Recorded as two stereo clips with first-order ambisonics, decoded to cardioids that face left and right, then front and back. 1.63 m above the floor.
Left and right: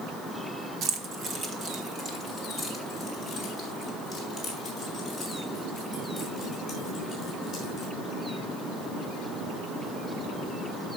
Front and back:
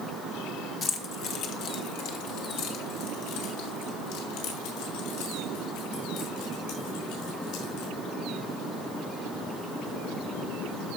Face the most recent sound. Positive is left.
turn(degrees=15)